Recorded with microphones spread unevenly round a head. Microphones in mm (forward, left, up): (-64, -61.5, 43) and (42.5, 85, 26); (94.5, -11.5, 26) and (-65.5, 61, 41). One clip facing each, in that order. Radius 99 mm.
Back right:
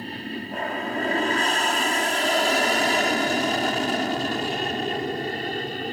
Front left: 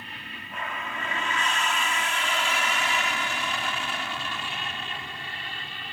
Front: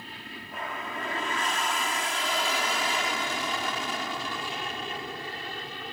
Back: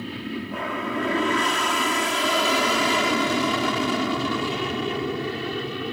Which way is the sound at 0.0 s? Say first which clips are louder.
Back right 13 dB, back 14 dB; straight behind.